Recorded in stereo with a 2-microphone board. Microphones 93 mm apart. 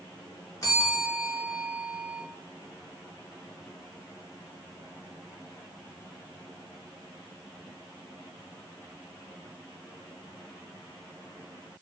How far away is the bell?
About 3 m.